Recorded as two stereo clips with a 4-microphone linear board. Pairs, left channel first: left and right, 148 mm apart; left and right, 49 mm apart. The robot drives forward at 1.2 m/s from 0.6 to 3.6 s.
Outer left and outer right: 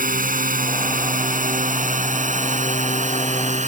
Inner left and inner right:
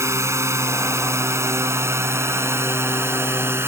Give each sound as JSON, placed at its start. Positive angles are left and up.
{"t": 0.0, "sound": "a drone", "side_deg": -70}